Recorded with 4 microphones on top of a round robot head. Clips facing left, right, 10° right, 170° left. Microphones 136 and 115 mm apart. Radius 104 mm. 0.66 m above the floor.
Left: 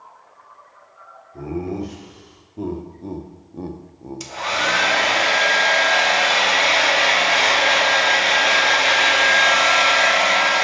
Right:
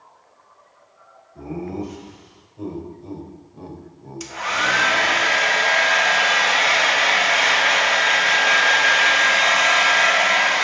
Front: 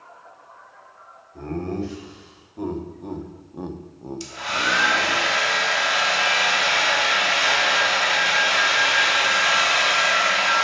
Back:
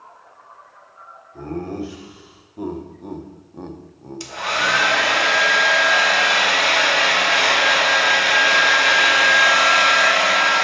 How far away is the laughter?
About 2.0 m.